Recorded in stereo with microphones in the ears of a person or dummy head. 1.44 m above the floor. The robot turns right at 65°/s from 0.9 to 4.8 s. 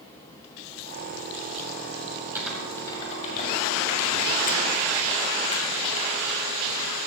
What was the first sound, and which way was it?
Typing on a keyboard, 10° right (ahead or behind).